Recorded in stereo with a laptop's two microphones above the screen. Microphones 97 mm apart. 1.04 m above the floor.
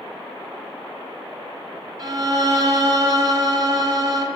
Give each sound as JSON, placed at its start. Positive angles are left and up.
{"t": 2.0, "sound": "a violin", "side_deg": -40, "distance_m": 1.8}